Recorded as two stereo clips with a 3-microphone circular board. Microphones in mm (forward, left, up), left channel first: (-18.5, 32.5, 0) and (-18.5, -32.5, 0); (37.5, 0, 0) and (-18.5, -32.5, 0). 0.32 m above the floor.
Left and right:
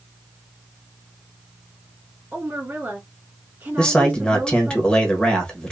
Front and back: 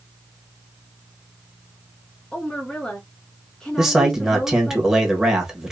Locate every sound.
2.3 s a woman speaking: 40° right, 2 m
3.8 s a man speaking: 135° left, 1.4 m